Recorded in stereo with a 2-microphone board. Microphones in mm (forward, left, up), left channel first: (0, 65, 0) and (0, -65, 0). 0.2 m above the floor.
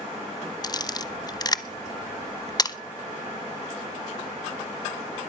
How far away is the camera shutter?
About 0.7 m.